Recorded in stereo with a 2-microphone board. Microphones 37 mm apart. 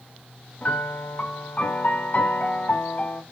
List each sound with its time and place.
0.6 s a piano: 55° left (ahead or behind), 1.7 m